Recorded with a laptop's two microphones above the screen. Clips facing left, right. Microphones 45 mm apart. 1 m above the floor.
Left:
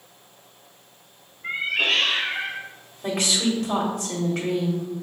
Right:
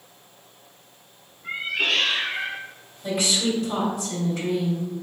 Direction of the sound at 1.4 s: 55° left (ahead or behind).